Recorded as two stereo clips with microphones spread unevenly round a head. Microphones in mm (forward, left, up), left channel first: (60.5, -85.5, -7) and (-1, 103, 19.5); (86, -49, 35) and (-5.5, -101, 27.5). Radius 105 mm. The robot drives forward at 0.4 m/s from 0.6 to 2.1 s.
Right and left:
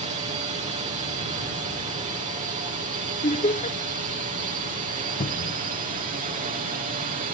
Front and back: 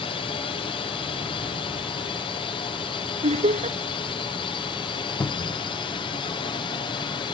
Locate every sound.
0.0 s a drone: 55° left; by 7.3 s 65° left
3.2 s laughter: 135° right
5.2 s a cupboard door: 25° right